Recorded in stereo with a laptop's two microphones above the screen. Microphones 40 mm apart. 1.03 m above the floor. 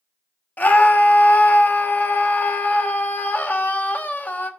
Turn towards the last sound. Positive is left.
turn(degrees=45)  # may be behind; listen again after turning